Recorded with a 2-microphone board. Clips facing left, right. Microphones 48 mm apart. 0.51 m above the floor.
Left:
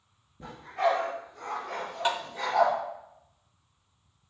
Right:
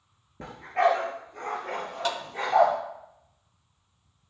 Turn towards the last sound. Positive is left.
turn(degrees=20)  # may be behind; listen again after turning